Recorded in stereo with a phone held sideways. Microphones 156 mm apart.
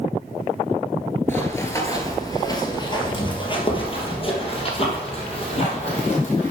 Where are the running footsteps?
15° left (ahead or behind), 1.9 m; by 6.5 s 40° left (ahead or behind), 4 m.